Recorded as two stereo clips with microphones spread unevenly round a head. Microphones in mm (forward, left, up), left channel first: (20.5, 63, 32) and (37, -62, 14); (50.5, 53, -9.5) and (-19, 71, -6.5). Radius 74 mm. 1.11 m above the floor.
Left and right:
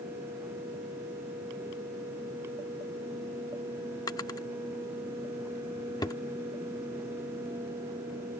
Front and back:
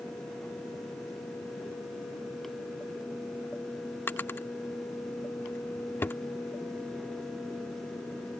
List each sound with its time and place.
4.1 s a drawer: 45° left